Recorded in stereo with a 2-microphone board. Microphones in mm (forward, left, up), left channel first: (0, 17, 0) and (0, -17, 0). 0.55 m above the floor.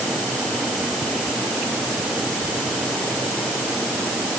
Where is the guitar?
No guitar in this recording.